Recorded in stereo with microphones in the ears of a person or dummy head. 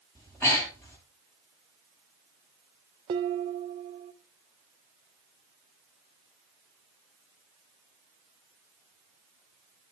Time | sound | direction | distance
0.1 | breathing | 10° left (ahead or behind) | 6 m
3.1 | dishes clattering | 25° right (ahead or behind) | 0.8 m